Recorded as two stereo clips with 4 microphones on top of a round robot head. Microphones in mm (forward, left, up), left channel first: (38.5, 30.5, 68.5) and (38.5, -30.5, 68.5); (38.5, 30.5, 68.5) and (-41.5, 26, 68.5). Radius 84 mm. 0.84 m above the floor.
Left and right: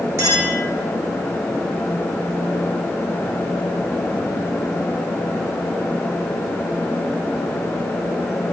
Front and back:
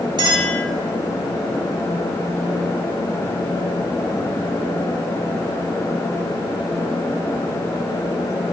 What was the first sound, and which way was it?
A clink, 140° right.